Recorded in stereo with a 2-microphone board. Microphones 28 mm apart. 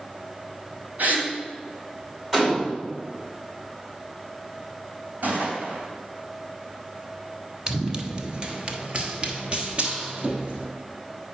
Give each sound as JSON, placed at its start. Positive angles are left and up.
{"t": 1.0, "sound": "a gasp", "side_deg": -80, "distance_m": 3.0}
{"t": 2.3, "sound": "a gunshot", "side_deg": -15, "distance_m": 3.0}
{"t": 5.2, "sound": "a gunshot", "side_deg": -80, "distance_m": 3.0}
{"t": 7.7, "sound": "running footsteps", "side_deg": -20, "distance_m": 1.0}